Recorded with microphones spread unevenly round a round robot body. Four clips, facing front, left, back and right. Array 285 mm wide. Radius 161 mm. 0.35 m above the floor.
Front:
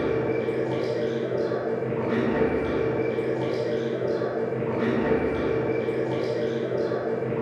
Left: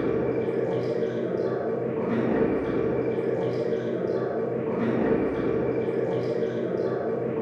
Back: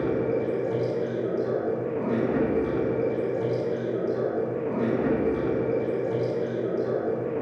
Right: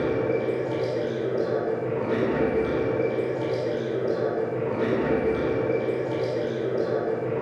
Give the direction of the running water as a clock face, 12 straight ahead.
8 o'clock.